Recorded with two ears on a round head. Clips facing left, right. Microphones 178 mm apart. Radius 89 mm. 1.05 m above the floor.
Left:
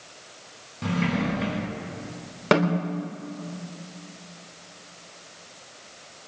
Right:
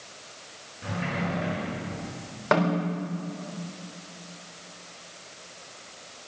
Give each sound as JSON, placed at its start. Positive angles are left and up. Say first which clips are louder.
{"t": 0.8, "sound": "a sliding door", "louder": "left 6 dB", "side_deg": 80, "distance_m": 5.0}
{"t": 2.5, "sound": "a snare drum", "louder": "left 2 dB", "side_deg": 45, "distance_m": 3.0}